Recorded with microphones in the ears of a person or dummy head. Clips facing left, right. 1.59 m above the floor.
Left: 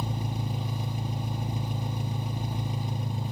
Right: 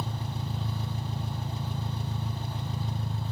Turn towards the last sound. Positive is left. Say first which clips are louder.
# left 3 dB
turn(degrees=15)  # may be behind; listen again after turning